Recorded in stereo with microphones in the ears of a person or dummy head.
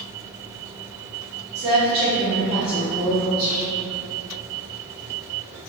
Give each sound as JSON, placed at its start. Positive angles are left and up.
{"t": 1.6, "sound": "a woman speaking", "side_deg": -60, "distance_m": 1.2}
{"t": 3.4, "sound": "whispering", "side_deg": -60, "distance_m": 1.6}